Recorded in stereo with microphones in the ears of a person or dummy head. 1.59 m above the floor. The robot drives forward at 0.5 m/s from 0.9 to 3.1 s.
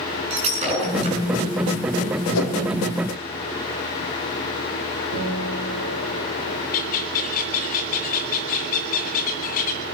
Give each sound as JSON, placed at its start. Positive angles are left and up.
{"t": 0.3, "sound": "breaking glass", "side_deg": -35, "distance_m": 7.5}
{"t": 2.3, "sound": "a whoosh", "side_deg": 80, "distance_m": 2.0}
{"t": 5.1, "sound": "a guitar", "side_deg": -55, "distance_m": 3.0}
{"t": 6.7, "sound": "a bird", "side_deg": 30, "distance_m": 0.7}